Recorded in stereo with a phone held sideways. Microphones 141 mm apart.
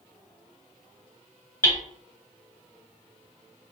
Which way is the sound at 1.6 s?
20° left (ahead or behind).